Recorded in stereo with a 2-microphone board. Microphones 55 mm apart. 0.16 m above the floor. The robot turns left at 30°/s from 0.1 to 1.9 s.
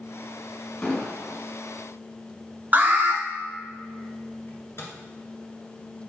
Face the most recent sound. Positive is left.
turn(degrees=50)  # may be behind; listen again after turning